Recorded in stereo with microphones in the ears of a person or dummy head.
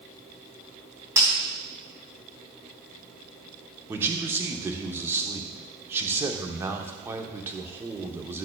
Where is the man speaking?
10° right (ahead or behind), 0.7 m.